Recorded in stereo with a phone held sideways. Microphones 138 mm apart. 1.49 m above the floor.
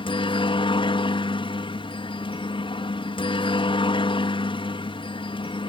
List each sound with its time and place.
0.0 s a helicopter: 35° left (ahead or behind)